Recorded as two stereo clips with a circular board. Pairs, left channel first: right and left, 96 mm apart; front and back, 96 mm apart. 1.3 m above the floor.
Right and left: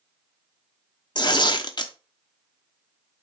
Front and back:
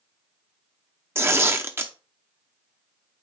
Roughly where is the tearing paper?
Behind right.